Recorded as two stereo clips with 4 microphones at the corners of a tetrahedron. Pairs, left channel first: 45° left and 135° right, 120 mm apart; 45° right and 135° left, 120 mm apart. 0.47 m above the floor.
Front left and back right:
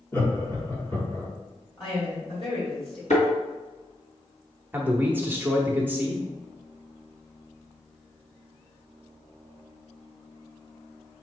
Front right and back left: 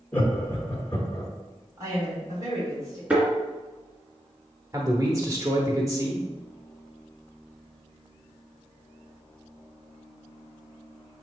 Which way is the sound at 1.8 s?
80° left.